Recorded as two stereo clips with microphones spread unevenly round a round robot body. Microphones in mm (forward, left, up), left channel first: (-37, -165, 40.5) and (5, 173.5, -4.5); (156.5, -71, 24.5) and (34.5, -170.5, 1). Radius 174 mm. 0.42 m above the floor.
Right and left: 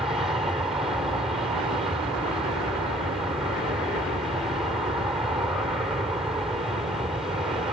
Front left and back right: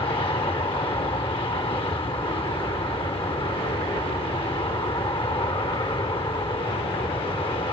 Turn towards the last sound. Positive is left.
turn(degrees=10)